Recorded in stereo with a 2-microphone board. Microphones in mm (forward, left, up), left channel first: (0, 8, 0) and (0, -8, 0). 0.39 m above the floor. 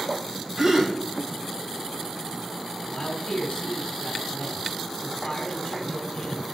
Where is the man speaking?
45° left (ahead or behind), 3 m.